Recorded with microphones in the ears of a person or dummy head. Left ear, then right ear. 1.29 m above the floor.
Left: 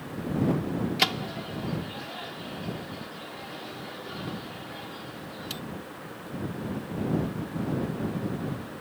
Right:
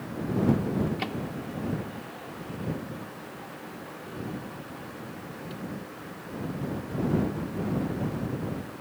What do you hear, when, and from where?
1.0 s a microwave: 55° left (ahead or behind)